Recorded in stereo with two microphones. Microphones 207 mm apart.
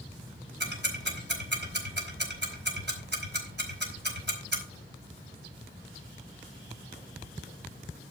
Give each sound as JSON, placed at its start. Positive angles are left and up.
{"t": 0.6, "sound": "ticking", "side_deg": -60, "distance_m": 4.5}